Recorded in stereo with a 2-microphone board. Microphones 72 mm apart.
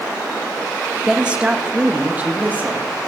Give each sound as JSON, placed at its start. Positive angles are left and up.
{"t": 1.1, "sound": "a woman speaking", "side_deg": -10, "distance_m": 0.9}